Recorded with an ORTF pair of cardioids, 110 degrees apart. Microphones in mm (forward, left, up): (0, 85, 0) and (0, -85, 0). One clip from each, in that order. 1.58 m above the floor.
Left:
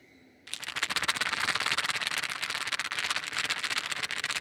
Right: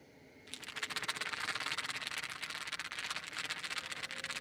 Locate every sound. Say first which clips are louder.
0.5 s a rattle: left 9 dB; 50° left